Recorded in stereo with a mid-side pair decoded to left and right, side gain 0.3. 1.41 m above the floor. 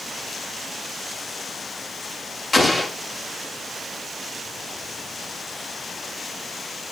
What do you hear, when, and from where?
2.5 s an explosion: 30° left, 1.6 m